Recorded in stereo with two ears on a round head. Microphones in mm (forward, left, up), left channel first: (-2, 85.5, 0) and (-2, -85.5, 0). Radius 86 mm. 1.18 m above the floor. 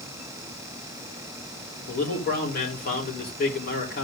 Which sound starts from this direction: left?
A man speaking, at 1.9 s.